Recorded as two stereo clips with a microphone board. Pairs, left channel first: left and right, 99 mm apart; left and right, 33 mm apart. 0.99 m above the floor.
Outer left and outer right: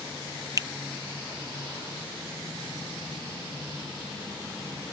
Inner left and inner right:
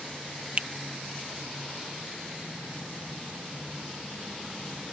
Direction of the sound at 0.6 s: 35° right (ahead or behind).